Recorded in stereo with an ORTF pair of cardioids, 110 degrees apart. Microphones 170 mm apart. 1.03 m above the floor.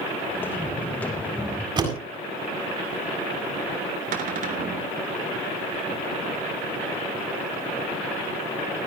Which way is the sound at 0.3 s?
10° left.